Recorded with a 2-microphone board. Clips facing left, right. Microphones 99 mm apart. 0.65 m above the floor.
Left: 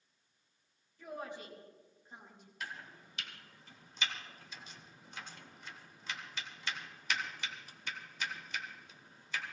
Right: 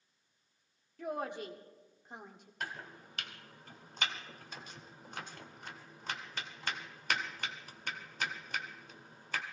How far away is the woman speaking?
About 1.4 m.